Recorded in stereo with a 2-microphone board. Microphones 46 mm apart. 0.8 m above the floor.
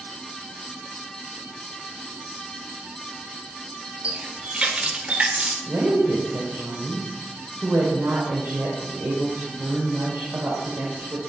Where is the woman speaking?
75° right (ahead or behind), 3 m.